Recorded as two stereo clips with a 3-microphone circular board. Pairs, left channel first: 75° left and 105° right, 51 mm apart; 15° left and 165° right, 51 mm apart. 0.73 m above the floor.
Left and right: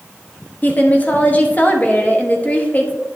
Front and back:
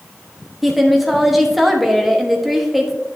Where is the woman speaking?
110° left, 1.2 m.